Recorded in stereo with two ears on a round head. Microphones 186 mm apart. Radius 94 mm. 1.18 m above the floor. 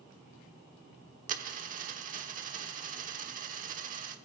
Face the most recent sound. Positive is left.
turn(degrees=-40)  # may be behind; listen again after turning